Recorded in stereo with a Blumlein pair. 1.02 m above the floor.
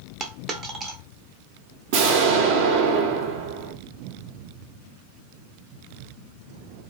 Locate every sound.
0.2 s a dropped coin: 25° right, 0.7 m
1.9 s an explosion: 50° right, 0.8 m